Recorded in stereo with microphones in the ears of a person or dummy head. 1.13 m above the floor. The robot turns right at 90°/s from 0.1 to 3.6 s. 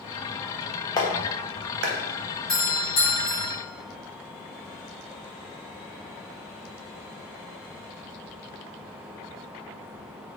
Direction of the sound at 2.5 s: 5° left.